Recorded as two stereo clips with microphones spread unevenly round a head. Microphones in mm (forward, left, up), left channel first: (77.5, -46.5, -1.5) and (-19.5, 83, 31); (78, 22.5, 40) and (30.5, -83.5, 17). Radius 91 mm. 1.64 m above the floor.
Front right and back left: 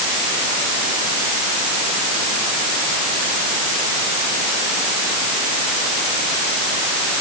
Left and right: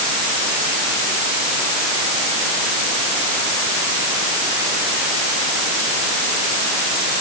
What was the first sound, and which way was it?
Only background noise.